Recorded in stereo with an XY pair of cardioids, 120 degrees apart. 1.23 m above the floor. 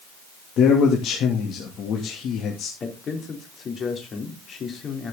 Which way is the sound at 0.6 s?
60° left.